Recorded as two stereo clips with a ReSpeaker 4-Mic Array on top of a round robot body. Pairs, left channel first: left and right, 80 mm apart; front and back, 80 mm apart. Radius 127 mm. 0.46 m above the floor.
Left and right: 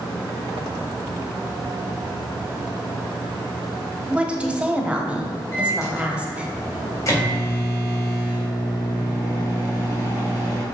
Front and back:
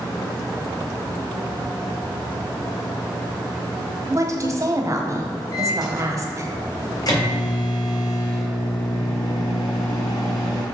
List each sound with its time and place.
4.1 s a woman speaking: 160° right, 1.4 m
5.5 s a microwave: 40° left, 3 m